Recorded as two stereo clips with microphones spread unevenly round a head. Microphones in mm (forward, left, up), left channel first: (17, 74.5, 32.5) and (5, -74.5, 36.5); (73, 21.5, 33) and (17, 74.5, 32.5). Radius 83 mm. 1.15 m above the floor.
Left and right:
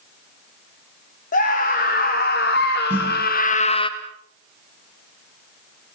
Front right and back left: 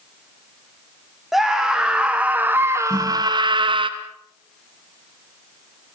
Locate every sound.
1.3 s a scream: 50° left, 3 m; by 3.9 s 145° left, 1.6 m
2.9 s a snare drum: 175° right, 6.5 m